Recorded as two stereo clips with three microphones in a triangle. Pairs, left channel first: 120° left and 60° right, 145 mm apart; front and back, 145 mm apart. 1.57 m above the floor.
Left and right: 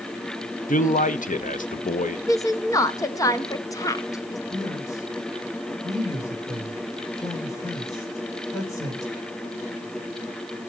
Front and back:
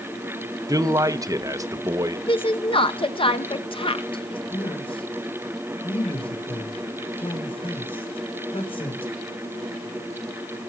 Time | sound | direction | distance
0.7 | a man speaking | 115° left | 1.1 m
2.3 | a woman speaking | 55° left | 1.2 m
4.5 | a man speaking | 50° left | 6 m